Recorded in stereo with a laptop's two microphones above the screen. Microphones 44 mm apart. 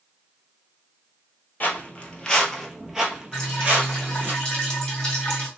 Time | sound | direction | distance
1.6 | footsteps | 35° left (ahead or behind) | 1.2 m
3.3 | dripping | 20° left (ahead or behind) | 1.6 m